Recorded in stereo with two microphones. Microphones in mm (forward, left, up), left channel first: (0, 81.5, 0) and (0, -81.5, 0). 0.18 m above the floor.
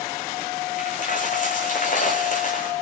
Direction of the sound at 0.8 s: 55° left (ahead or behind).